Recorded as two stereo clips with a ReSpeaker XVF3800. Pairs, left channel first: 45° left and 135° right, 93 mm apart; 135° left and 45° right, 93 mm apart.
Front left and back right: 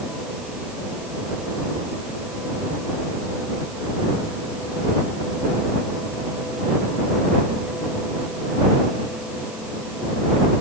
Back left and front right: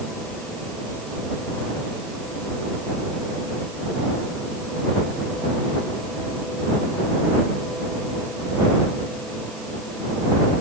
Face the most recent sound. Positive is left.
No sound to turn to.